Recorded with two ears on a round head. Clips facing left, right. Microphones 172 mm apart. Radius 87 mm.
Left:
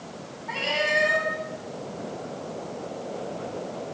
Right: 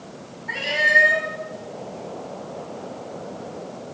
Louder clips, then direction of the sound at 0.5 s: Right 1 dB; 15° right (ahead or behind).